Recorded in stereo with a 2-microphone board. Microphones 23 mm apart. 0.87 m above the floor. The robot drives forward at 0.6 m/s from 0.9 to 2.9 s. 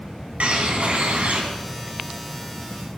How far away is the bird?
About 3 m.